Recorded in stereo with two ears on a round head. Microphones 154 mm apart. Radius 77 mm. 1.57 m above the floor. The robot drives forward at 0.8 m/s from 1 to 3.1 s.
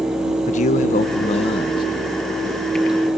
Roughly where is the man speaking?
Left.